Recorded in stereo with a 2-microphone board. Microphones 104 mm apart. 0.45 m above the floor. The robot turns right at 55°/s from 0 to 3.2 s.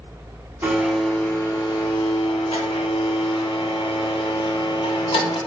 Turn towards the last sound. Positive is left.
turn(degrees=125)